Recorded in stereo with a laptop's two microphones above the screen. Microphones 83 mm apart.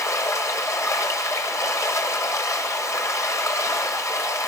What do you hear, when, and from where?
0.0 s running water: 40° left (ahead or behind), 2 m